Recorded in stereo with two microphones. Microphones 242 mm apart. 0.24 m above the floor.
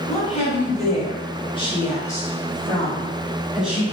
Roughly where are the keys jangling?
I don't hear keys jangling.